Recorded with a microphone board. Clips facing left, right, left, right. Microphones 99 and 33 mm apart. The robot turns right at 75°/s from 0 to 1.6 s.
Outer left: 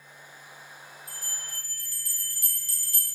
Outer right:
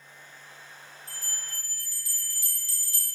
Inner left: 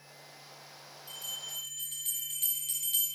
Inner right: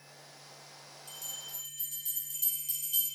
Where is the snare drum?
No snare drum in this recording.